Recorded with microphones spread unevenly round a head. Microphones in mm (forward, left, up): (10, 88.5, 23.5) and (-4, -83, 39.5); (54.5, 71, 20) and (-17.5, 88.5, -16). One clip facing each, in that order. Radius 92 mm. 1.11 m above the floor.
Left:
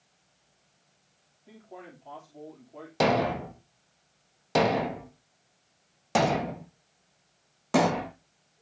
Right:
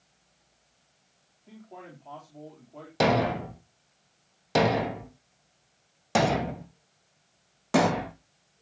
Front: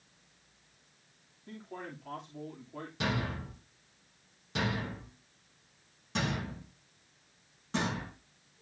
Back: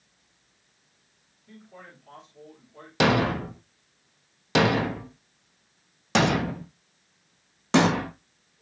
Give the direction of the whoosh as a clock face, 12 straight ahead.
I don't hear a whoosh.